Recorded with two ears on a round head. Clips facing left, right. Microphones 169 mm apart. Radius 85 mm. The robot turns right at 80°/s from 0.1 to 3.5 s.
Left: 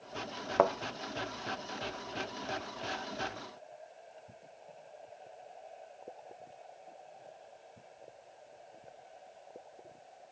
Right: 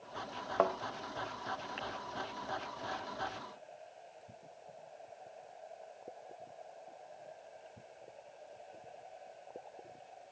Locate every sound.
0.6 s a thud: 45° left (ahead or behind), 0.6 m; by 0.7 s 60° left (ahead or behind), 0.6 m